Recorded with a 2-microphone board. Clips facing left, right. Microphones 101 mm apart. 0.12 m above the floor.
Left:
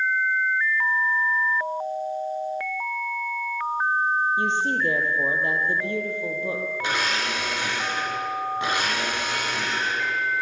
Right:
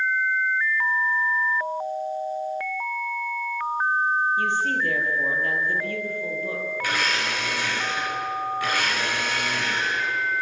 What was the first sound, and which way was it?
A woman speaking, 20° left (ahead or behind).